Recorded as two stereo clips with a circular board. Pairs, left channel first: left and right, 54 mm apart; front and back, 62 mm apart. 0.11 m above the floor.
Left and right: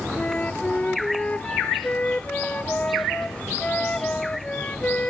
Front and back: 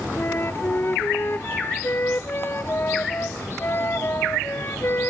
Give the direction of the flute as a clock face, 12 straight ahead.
11 o'clock.